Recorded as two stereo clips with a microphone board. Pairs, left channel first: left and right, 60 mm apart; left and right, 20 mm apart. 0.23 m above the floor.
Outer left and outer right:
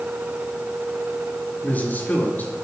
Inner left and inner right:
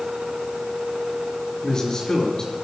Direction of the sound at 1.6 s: 35° left (ahead or behind).